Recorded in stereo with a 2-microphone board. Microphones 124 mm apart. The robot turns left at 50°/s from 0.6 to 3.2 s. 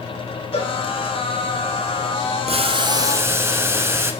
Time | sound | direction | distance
0.5 | a cowbell | 45° left (ahead or behind) | 3.5 m
2.5 | boiling | 120° right | 1.0 m